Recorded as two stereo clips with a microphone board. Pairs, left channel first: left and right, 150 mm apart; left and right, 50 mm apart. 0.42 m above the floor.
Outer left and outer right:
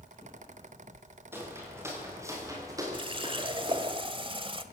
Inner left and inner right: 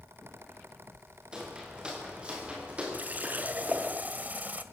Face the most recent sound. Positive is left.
turn(degrees=-35)  # may be behind; listen again after turning